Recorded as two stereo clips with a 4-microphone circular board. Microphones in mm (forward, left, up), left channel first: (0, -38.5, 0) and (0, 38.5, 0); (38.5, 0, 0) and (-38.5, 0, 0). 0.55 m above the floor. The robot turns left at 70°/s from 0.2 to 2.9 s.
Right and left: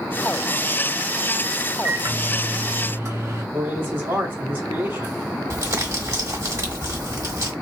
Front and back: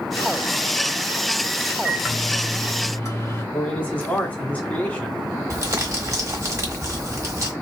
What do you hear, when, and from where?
1.8 s a microwave: 120° left, 1.5 m; by 3.4 s 45° left, 1.5 m
3.5 s a man speaking: 55° left, 1.3 m
5.5 s crumpling: 135° left, 1.2 m